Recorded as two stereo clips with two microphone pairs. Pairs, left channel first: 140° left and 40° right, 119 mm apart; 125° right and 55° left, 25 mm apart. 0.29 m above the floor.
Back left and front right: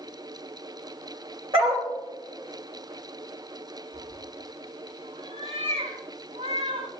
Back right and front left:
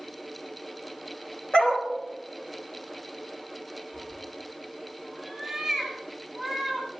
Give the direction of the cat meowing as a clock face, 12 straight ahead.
1 o'clock.